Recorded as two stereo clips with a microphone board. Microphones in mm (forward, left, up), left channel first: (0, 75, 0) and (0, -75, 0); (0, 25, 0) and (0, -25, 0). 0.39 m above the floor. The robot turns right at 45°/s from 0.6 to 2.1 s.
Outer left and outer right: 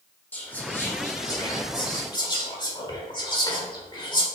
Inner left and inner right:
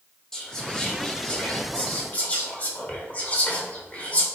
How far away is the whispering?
About 1.2 m.